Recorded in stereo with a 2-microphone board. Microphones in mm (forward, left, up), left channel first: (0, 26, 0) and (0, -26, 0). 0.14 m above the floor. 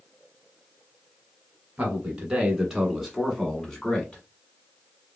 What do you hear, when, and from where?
1.8 s a man speaking: 20° right (ahead or behind), 1.5 m; by 4.2 s 20° left (ahead or behind), 1.2 m